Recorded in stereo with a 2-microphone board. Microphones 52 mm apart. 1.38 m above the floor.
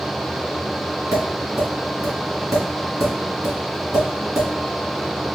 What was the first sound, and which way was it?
Tapping, 70° right (ahead or behind).